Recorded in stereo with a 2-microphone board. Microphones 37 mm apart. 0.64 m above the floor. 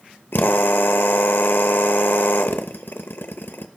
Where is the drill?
80° left, 0.7 m.